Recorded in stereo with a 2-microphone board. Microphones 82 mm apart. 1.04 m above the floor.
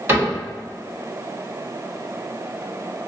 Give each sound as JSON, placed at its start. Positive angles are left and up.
{"t": 0.1, "sound": "a cupboard door", "side_deg": -30, "distance_m": 1.6}